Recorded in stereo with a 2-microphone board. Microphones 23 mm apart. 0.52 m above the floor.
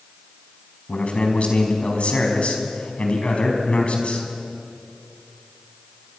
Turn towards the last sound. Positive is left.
turn(degrees=60)  # may be behind; listen again after turning